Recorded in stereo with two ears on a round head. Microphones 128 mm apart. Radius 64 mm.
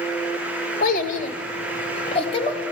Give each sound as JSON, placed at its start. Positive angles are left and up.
{"t": 0.8, "sound": "a child speaking", "side_deg": 65, "distance_m": 1.2}